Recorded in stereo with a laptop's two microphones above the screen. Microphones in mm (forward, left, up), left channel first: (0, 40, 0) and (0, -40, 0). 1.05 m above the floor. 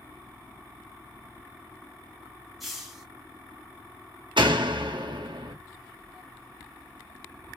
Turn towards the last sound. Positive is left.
turn(degrees=-80)